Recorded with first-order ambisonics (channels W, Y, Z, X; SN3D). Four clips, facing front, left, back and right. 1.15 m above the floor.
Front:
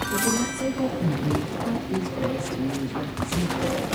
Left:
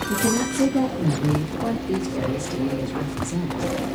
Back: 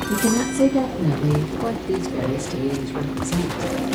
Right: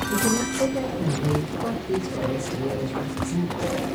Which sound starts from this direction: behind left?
A woman speaking, at 0.1 s.